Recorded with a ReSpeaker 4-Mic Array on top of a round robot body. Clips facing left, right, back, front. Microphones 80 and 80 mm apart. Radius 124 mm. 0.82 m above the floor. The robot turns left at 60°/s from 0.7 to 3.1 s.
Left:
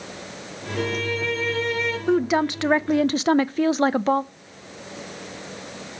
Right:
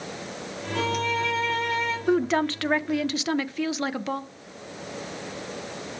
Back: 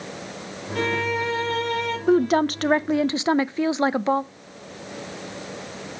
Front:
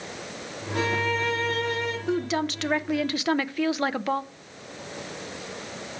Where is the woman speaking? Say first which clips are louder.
Left 2 dB, back 10 dB; 175° right, 0.5 m; by 4.2 s 125° left, 0.5 m.